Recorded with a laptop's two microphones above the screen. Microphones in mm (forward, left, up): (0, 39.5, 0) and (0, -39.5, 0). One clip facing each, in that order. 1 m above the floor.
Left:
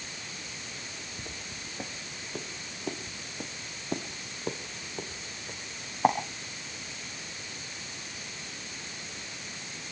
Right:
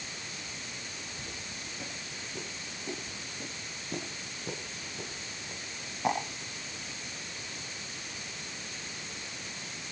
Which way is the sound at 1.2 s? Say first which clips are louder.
Left 1 dB; 70° left (ahead or behind).